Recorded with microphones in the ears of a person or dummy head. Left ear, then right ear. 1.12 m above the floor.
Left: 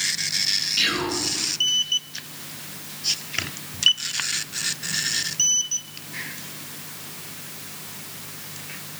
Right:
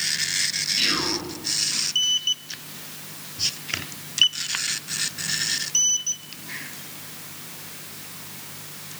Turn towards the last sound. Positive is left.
turn(degrees=25)  # may be behind; listen again after turning